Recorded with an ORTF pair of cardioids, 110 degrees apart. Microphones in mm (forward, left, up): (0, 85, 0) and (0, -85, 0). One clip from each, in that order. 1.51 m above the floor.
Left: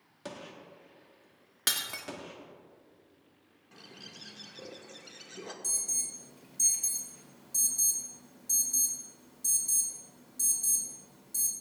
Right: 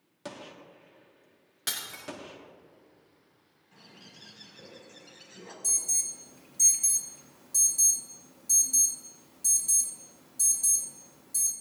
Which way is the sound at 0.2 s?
5° right.